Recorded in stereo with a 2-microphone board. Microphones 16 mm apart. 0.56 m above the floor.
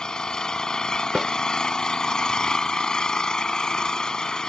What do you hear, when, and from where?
0.0 s an engine running: 60° left (ahead or behind)
1.1 s a snare drum: 50° right (ahead or behind)